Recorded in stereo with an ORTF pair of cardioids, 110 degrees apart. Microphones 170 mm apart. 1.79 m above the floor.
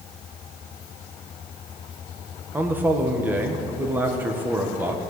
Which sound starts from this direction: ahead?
A man speaking, at 2.5 s.